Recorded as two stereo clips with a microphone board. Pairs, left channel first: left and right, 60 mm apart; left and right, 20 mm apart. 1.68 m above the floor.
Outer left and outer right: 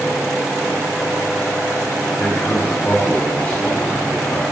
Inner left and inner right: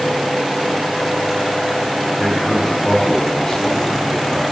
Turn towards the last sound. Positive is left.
turn(degrees=30)  # may be behind; listen again after turning